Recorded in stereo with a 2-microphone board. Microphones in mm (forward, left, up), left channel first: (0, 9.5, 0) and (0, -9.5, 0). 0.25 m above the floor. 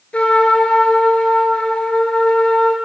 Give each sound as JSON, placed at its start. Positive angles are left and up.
{"t": 0.1, "sound": "a trumpet", "side_deg": 75, "distance_m": 3.0}